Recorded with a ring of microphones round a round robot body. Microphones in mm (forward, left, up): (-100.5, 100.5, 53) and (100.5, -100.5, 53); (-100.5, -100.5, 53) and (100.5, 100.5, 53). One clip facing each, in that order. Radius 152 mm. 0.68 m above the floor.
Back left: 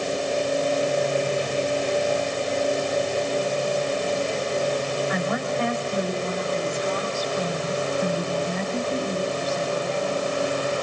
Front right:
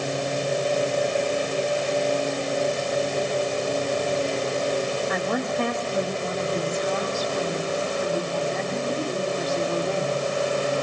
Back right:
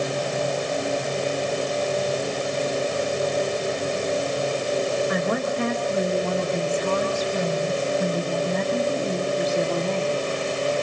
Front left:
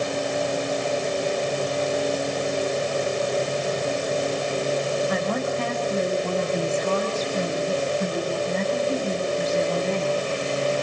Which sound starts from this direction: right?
A woman speaking, at 5.1 s.